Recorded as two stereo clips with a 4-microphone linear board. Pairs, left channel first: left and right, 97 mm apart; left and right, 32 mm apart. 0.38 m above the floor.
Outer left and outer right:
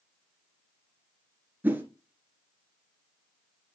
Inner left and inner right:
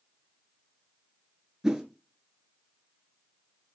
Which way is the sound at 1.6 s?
20° right (ahead or behind).